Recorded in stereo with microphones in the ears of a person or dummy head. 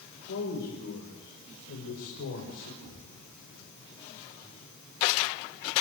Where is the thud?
80° right, 5.5 m.